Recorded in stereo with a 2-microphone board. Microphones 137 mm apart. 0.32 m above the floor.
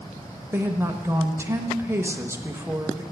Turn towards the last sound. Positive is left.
turn(degrees=-20)  # may be behind; listen again after turning